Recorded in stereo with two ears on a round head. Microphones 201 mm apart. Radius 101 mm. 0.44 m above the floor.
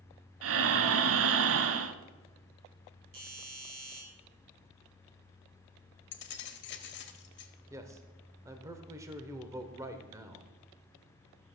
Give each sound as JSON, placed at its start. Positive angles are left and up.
{"t": 0.4, "sound": "breathing", "side_deg": -65, "distance_m": 0.6}
{"t": 3.1, "sound": "a doorbell", "side_deg": -40, "distance_m": 6.0}
{"t": 6.1, "sound": "keys jangling", "side_deg": 55, "distance_m": 1.2}
{"t": 7.7, "sound": "a man speaking", "side_deg": -15, "distance_m": 1.0}